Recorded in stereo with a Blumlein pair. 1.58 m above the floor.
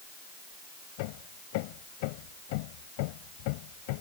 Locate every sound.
1.0 s hammering: 45° left